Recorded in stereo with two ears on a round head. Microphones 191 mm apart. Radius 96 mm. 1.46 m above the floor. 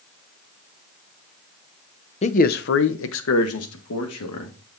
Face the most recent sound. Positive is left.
turn(degrees=85)